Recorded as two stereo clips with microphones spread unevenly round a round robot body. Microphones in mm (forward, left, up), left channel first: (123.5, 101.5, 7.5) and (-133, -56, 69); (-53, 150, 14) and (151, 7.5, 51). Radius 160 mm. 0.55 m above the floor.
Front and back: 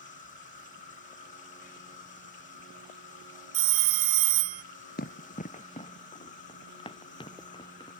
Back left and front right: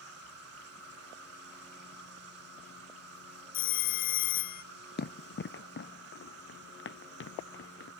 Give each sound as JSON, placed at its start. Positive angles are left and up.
{"t": 0.0, "sound": "an insect", "azimuth_deg": -25}
{"t": 3.5, "sound": "a phone ringing", "azimuth_deg": -160}
{"t": 5.0, "sound": "running footsteps", "azimuth_deg": 95}